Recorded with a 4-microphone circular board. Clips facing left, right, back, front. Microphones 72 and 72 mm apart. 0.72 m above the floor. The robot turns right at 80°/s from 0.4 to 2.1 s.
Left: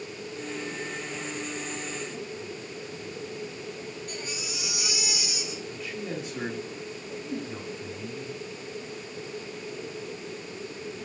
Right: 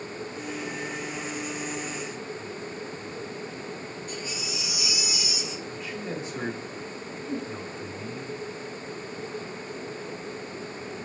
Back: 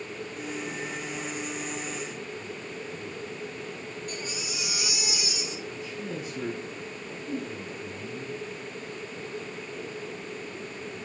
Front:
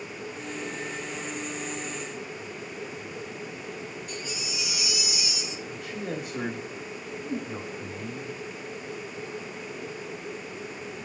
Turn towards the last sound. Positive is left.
turn(degrees=0)